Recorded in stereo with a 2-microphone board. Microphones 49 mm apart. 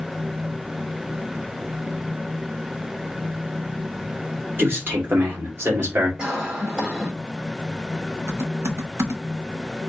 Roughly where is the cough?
Centre.